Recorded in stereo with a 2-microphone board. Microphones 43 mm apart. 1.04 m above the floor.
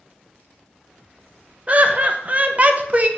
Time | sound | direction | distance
1.7 | laughter | 35° right (ahead or behind) | 1.0 m